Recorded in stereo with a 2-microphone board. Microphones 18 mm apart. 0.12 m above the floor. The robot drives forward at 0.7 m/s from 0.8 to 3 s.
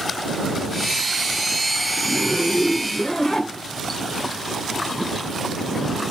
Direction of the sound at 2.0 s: 40° left (ahead or behind).